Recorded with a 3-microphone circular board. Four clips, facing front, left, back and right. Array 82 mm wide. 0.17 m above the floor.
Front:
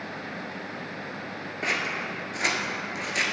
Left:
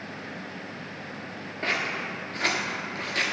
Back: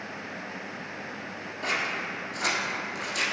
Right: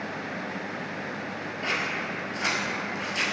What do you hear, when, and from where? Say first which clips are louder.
1.6 s scissors: left 1 dB, front 1 dB; 40° left, 1.3 m